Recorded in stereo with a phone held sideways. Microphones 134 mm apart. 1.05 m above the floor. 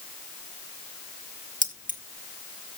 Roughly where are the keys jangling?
Right.